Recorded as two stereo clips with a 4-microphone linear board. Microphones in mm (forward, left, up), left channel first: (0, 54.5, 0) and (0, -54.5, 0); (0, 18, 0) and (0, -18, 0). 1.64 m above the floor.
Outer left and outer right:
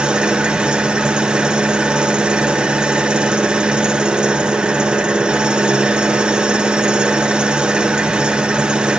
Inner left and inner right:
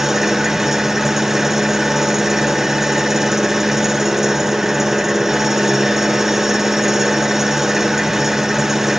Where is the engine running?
10° right (ahead or behind), 1.2 m.